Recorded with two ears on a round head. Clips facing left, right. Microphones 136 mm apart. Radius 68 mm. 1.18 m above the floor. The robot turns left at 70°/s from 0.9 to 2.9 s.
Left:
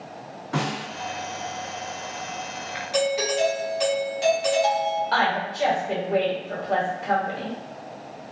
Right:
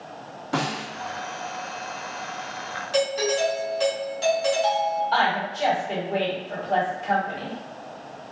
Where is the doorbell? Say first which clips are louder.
Even; 10° left (ahead or behind), 1.2 m.